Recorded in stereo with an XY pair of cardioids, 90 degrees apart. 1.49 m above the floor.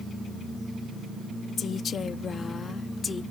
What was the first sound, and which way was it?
A woman speaking, 60° left.